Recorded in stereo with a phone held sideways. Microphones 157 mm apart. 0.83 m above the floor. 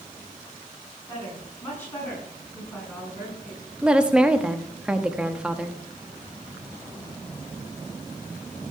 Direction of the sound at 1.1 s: 20° left (ahead or behind).